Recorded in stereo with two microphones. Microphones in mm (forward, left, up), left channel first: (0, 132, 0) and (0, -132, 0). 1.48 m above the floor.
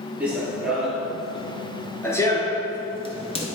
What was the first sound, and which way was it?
Running footsteps, 5° right (ahead or behind).